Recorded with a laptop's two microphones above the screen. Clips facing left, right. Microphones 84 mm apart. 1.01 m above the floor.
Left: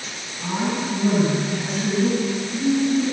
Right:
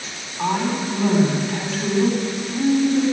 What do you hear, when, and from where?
0.4 s a woman speaking: 85° right, 8 m